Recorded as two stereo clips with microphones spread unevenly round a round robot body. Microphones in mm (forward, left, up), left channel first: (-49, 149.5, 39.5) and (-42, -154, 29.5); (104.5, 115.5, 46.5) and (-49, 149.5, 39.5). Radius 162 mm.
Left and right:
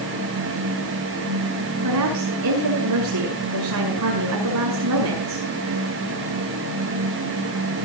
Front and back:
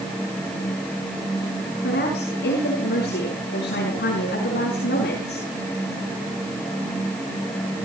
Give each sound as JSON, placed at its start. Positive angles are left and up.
{"t": 1.8, "sound": "a woman speaking", "azimuth_deg": -50, "distance_m": 5.5}